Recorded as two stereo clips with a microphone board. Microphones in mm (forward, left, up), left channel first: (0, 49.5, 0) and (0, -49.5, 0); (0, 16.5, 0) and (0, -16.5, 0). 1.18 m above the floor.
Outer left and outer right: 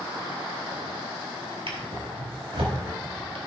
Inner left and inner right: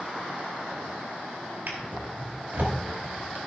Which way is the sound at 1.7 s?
70° right (ahead or behind).